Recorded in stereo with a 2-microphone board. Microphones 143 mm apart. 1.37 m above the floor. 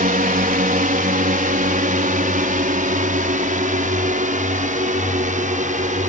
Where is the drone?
70° right (ahead or behind); by 6.1 s 60° right (ahead or behind).